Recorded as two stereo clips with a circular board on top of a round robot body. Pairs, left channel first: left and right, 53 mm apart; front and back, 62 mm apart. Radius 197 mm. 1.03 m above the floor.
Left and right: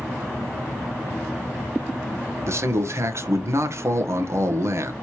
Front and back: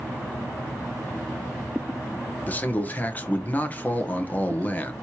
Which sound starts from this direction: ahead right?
A man speaking, at 2.5 s.